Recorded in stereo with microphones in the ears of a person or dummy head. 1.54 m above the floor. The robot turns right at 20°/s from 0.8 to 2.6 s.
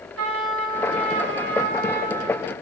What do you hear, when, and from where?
0.2 s a trumpet: 80° right, 2 m; by 2.5 s 45° right, 2 m